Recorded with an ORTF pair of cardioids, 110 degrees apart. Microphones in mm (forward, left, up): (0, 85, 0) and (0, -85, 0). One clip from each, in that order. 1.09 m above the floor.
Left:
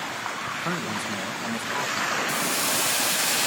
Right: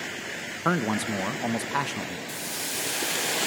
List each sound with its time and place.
0.7 s a man speaking: 25° right, 0.6 m
2.3 s a hiss: 25° left, 0.6 m